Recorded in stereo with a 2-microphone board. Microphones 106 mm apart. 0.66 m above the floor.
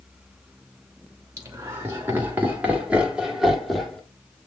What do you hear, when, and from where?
1.4 s laughter: 25° right (ahead or behind), 2.5 m; by 4.0 s 5° left (ahead or behind), 1.6 m